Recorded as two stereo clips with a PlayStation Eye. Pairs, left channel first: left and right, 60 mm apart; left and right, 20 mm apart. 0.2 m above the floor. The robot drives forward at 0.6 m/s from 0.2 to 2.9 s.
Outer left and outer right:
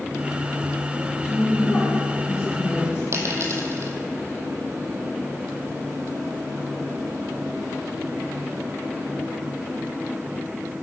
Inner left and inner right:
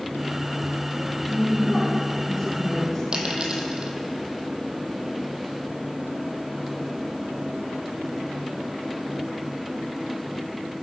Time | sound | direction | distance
1.2 | a woman speaking | 45° left (ahead or behind) | 2.5 m
3.1 | a dropped coin | 50° right (ahead or behind) | 1.4 m